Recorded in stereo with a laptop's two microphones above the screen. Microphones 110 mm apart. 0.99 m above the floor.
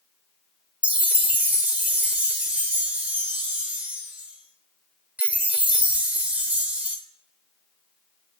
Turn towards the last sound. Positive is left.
turn(degrees=-15)  # may be behind; listen again after turning